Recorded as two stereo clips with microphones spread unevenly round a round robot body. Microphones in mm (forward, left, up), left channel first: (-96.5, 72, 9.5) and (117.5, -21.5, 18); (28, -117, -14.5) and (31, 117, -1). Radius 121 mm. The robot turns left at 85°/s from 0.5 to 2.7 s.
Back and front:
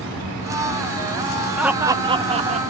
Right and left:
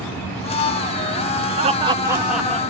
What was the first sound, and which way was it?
Laughter, 65° left.